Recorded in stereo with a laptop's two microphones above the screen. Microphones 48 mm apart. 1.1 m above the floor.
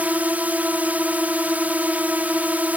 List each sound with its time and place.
0.0 s a drone: 35° right (ahead or behind)